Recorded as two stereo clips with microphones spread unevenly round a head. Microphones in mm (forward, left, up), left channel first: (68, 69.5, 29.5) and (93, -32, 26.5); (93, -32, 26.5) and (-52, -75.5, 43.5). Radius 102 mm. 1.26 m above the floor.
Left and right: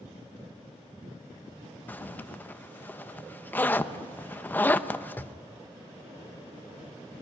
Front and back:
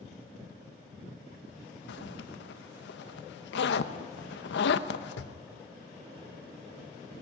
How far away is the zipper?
About 1.0 m.